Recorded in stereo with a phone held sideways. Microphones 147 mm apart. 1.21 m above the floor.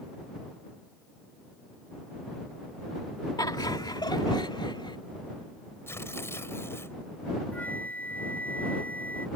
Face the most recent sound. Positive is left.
turn(degrees=10)  # may be behind; listen again after turning